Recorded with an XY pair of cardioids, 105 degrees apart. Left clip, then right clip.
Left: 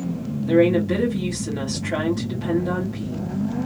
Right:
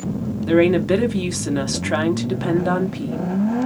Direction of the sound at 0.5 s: 70° right.